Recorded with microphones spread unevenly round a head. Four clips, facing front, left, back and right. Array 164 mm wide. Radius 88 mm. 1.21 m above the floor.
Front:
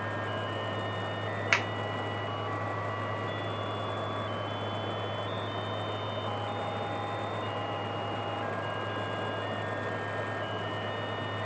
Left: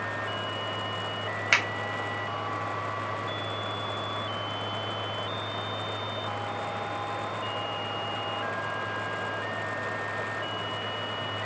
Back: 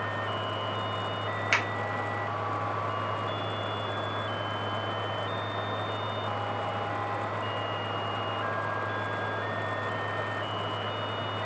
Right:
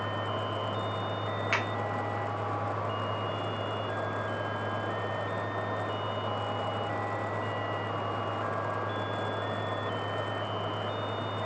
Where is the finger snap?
30° left, 1.0 m.